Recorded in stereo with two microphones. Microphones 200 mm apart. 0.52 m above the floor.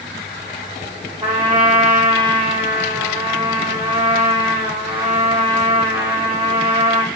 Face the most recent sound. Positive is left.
turn(degrees=-30)  # may be behind; listen again after turning